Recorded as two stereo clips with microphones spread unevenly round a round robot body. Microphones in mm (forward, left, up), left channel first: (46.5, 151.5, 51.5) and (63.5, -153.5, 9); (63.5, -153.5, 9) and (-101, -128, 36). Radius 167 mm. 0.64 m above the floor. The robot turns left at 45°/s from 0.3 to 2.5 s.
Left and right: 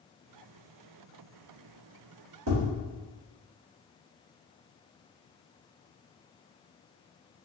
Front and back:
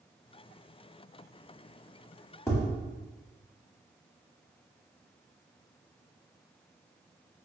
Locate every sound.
2.5 s tapping: 75° right, 1.6 m